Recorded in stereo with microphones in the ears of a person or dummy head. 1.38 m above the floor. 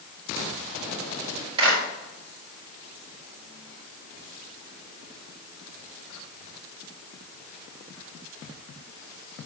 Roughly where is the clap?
Right.